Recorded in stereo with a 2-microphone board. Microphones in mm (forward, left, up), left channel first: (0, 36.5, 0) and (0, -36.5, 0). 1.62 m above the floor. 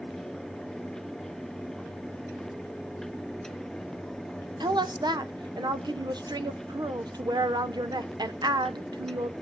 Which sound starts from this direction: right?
A woman speaking, at 4.6 s.